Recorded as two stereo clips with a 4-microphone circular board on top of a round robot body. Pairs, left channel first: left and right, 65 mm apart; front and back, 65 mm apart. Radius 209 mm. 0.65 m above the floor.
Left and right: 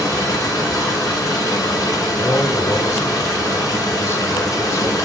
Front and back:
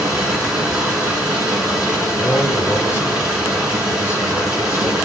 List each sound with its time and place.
0.0 s running water: 105° left, 9 m
2.1 s a man speaking: 50° left, 4 m